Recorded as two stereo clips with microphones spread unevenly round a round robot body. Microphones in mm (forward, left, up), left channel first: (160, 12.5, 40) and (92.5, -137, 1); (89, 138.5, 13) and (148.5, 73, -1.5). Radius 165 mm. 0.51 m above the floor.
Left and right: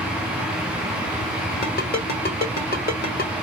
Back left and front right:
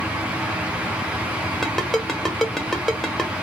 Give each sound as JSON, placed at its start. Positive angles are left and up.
{"t": 1.6, "sound": "a ringtone", "azimuth_deg": 40, "distance_m": 1.4}